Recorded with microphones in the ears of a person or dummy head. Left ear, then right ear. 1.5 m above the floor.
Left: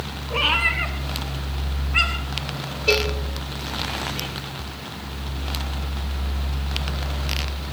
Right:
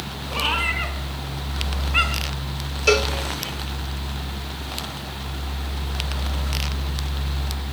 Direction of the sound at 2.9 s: 50° right (ahead or behind).